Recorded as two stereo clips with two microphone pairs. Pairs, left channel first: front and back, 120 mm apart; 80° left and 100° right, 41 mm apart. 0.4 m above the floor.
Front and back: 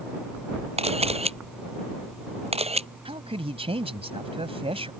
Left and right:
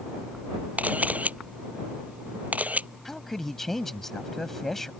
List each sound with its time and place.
0.8 s a camera shutter: 150° right
3.0 s a man speaking: 160° left